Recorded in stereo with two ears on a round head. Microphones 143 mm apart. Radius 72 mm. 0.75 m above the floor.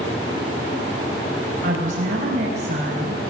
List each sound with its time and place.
1.6 s a woman speaking: 55° right (ahead or behind), 3.5 m; by 3.2 s 40° right (ahead or behind), 5.5 m